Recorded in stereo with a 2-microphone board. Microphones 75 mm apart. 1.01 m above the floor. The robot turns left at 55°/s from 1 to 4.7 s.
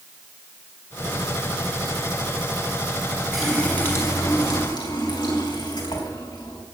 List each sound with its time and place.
3.3 s a running tap: straight behind, 4.5 m; by 6.6 s 105° left, 4.5 m